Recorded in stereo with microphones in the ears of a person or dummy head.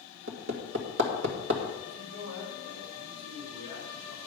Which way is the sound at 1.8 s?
55° right (ahead or behind).